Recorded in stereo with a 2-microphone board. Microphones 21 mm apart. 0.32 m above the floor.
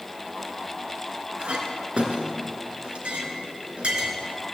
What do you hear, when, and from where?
1.4 s a clink: 55° right (ahead or behind), 2 m